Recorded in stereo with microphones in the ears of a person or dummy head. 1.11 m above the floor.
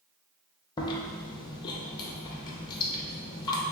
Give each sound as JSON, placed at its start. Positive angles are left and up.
{"t": 0.8, "sound": "chewing", "side_deg": 25, "distance_m": 0.5}